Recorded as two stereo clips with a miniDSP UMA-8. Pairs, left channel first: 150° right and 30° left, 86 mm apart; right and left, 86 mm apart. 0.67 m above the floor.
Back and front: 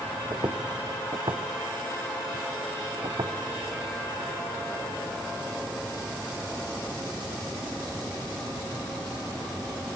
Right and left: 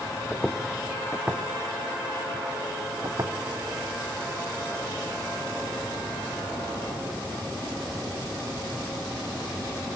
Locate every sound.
0.3 s footsteps: 5° right, 1.8 m; by 3.3 s 50° left, 1.9 m